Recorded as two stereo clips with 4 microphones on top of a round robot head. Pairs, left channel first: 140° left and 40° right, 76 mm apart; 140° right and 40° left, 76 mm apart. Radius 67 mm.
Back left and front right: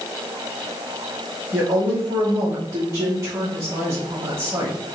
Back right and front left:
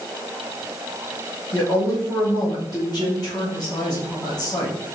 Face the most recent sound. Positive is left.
turn(degrees=-95)